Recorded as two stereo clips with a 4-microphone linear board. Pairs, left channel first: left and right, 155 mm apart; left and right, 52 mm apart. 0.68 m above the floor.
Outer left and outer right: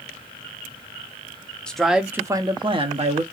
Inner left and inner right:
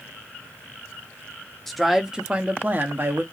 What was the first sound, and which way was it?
A man speaking, 5° left (ahead or behind).